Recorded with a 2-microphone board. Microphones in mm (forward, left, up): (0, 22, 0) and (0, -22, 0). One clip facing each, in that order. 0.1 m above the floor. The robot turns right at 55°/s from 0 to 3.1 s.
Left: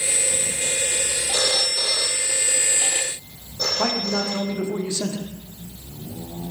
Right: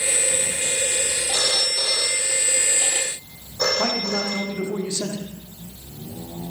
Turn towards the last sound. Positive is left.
turn(degrees=15)  # may be behind; listen again after turning